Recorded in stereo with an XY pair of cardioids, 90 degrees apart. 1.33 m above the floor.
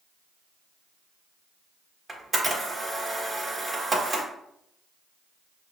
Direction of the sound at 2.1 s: 15° right.